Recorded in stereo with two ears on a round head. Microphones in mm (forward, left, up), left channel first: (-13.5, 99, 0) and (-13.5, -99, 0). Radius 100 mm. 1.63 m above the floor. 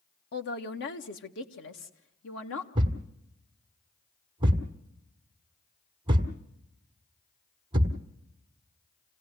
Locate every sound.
0.3 s a man speaking: 50° left (ahead or behind), 1.3 m; by 2.6 s 70° left (ahead or behind), 3 m
2.8 s a thud: 25° right (ahead or behind), 1.6 m